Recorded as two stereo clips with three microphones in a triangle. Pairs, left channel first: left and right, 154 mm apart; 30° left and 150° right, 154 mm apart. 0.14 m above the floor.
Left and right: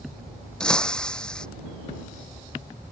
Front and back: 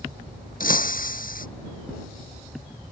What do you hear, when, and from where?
0.6 s breaking glass: 5° left